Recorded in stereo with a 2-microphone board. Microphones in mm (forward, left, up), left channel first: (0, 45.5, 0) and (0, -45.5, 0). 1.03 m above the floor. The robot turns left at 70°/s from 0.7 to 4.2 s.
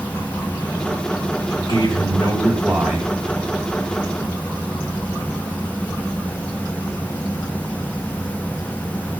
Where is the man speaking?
70° left, 4.5 m; by 3.1 s 40° right, 4.5 m.